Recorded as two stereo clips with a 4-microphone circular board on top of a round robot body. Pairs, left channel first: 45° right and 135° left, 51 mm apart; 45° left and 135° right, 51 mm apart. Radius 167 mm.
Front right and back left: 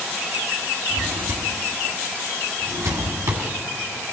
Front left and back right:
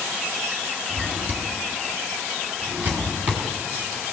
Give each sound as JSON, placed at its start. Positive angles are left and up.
{"t": 0.9, "sound": "a drawer", "azimuth_deg": 165, "distance_m": 1.9}